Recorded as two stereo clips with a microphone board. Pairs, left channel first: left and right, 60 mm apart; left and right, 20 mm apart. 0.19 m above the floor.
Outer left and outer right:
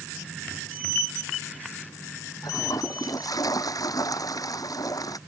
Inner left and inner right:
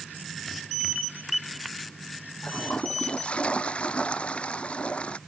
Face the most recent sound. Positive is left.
turn(degrees=80)